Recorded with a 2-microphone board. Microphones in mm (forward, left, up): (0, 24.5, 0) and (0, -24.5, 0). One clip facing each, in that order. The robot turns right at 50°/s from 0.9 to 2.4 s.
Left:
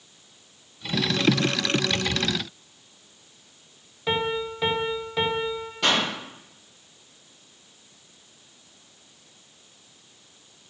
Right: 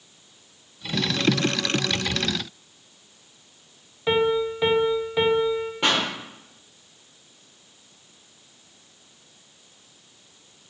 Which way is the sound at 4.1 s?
10° right (ahead or behind).